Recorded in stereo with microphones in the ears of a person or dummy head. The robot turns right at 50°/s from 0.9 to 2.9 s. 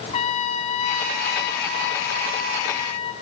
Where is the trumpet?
40° left, 0.8 m; by 3.1 s 140° left, 0.8 m.